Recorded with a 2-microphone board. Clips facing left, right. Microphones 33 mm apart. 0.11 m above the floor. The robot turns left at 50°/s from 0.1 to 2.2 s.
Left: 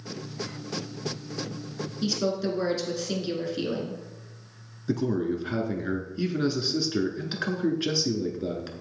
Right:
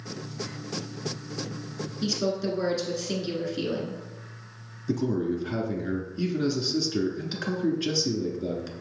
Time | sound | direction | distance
2.0 | a woman speaking | 5° left (ahead or behind) | 1.2 m
4.9 | a man speaking | 20° left (ahead or behind) | 1.1 m